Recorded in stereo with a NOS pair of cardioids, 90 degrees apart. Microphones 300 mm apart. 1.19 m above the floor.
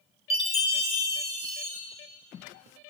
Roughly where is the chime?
Ahead.